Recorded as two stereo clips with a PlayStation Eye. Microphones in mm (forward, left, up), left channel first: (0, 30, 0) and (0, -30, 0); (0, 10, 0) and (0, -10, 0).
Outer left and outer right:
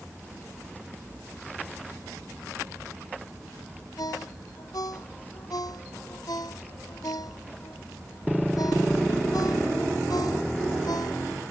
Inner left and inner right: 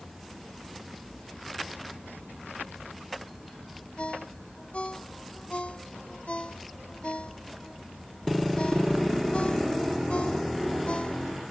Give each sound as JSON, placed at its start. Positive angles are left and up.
{"t": 4.0, "sound": "a ringtone", "side_deg": 85}